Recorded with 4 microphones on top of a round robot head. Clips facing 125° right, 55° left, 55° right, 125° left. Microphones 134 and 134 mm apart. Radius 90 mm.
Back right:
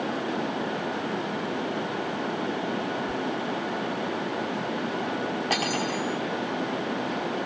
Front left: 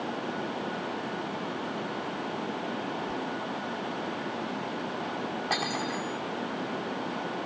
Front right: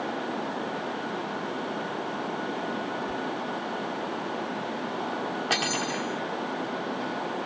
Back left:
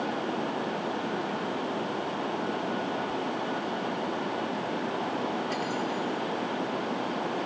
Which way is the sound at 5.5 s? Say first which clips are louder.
Back right 3 dB, front right 1 dB; 50° right.